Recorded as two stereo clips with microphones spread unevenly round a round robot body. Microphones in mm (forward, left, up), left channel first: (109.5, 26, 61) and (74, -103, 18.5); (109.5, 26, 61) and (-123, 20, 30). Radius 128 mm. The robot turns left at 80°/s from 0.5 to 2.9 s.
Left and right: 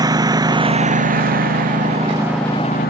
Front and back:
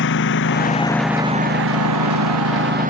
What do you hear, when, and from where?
0.0 s a lawn mower: 45° right; by 2.9 s 120° left